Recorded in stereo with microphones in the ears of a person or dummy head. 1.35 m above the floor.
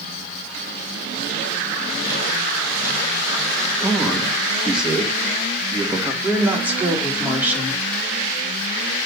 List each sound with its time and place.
3.8 s a man speaking: 5° right (ahead or behind), 2.5 m
6.2 s a woman speaking: 5° right (ahead or behind), 4 m